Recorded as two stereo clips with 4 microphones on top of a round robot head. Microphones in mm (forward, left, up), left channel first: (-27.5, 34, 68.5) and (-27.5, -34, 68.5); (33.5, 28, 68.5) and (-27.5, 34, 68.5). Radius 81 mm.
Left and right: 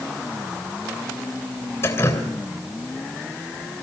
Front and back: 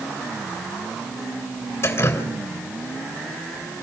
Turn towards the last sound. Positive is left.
turn(degrees=40)